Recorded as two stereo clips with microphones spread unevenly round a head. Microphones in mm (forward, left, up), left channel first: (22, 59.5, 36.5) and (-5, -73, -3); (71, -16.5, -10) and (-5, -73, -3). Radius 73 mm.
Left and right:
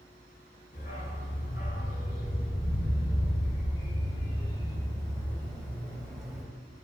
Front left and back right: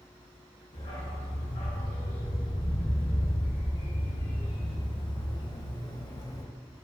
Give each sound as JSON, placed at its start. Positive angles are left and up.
{"t": 0.7, "sound": "a dog barking", "azimuth_deg": 65, "distance_m": 4.0}